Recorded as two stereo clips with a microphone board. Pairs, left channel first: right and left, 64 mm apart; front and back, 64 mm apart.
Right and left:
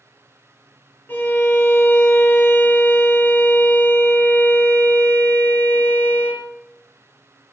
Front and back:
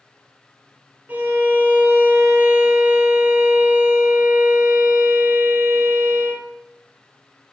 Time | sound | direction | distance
1.1 | a violin | 130° right | 0.5 m